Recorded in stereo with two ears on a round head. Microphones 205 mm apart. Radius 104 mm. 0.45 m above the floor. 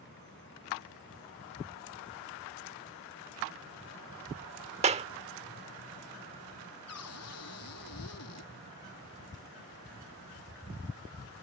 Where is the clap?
30° right (ahead or behind).